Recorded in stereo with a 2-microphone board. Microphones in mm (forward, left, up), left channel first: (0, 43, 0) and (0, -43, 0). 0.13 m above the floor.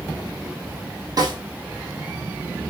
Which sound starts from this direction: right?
A snare drum, at 1.2 s.